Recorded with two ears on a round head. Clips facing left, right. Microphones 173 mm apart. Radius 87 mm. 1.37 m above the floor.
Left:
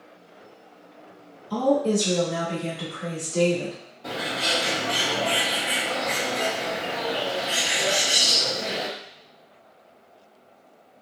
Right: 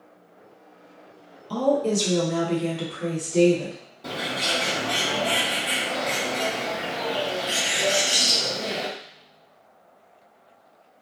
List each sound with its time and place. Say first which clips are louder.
1.5 s a woman speaking: left 1 dB; 75° right (ahead or behind), 1.3 m; by 3.8 s 15° right (ahead or behind), 1.4 m
4.0 s a bird: even; 35° right (ahead or behind), 1.4 m